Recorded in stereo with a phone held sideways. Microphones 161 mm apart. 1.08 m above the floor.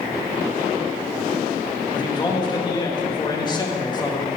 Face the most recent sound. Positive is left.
turn(degrees=25)  # may be behind; listen again after turning